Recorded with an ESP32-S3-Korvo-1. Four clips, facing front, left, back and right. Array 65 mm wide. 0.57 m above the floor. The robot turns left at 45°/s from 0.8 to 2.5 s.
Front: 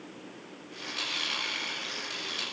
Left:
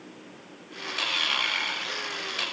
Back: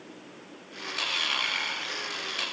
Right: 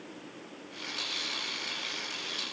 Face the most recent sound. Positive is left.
No sound to turn to.